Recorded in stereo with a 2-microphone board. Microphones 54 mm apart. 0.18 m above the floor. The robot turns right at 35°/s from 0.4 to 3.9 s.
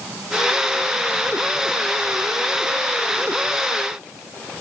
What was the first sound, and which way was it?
Only background noise.